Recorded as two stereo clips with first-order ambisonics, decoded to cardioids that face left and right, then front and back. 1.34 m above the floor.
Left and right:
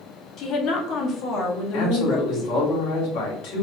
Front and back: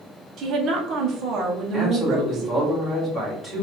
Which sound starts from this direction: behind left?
A woman speaking, at 0.4 s.